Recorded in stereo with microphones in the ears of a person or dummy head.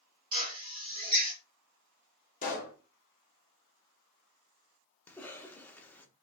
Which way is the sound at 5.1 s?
10° left (ahead or behind).